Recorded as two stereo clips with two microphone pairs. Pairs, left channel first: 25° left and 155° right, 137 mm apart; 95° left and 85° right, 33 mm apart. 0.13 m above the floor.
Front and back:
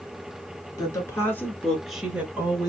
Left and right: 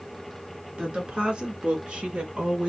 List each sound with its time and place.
0.8 s a woman speaking: 30° right, 1.5 m; by 2.7 s 115° right, 1.2 m